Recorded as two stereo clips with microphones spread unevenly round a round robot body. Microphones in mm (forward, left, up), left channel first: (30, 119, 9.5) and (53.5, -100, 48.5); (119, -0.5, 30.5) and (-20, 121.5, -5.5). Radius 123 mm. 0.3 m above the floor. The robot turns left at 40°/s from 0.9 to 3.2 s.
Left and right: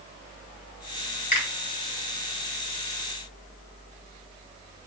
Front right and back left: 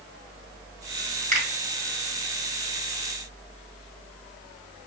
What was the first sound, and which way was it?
A finger snap, 125° left.